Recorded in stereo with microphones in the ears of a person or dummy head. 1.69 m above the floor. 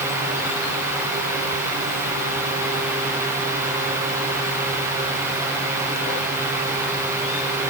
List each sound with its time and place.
Only background noise.